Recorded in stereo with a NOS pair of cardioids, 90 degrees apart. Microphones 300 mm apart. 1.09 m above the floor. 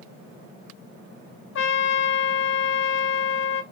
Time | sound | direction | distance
1.6 | a trumpet | 40° left | 0.8 m